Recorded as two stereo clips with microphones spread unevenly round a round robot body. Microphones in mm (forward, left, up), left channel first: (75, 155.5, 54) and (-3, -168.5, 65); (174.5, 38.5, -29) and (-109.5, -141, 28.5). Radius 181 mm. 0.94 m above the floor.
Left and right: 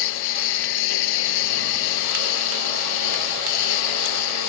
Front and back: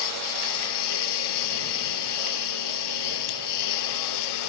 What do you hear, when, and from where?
0.0 s a lawn mower: 60° left